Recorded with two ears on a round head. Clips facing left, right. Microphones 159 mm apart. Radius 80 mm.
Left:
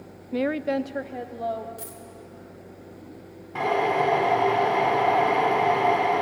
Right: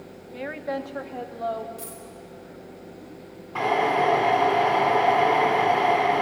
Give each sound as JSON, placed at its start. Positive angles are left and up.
{"t": 0.3, "sound": "a woman speaking", "side_deg": 65, "distance_m": 0.5}
{"t": 1.8, "sound": "a dropped coin", "side_deg": 15, "distance_m": 3.0}
{"t": 3.5, "sound": "a drill", "side_deg": 10, "distance_m": 9.0}